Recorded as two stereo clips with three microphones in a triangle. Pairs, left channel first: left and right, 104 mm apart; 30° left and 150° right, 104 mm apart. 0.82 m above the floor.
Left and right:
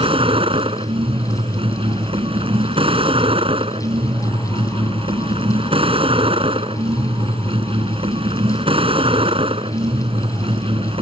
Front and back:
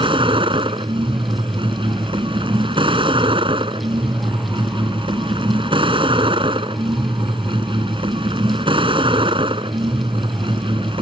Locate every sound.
0.0 s a vehicle: 115° right